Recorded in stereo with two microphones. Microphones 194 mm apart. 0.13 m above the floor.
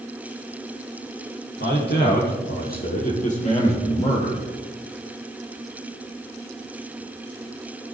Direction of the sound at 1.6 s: 60° left (ahead or behind).